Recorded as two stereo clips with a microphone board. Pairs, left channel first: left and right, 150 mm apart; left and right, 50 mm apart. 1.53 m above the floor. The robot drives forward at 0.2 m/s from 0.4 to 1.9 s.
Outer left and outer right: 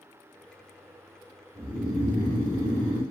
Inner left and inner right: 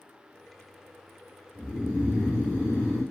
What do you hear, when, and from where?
1.6 s snoring: 25° right (ahead or behind), 1.2 m; by 3.0 s 20° right (ahead or behind), 1.3 m